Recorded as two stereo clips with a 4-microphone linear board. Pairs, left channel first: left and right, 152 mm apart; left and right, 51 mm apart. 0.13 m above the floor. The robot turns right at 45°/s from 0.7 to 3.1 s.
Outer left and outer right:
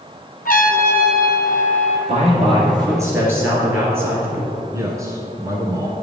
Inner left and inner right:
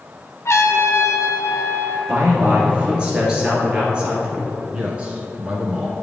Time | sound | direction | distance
0.5 | a trumpet | 70° left | 0.8 m
2.1 | a man speaking | 65° right | 2.5 m
4.7 | a man speaking | 20° right (ahead or behind) | 1.2 m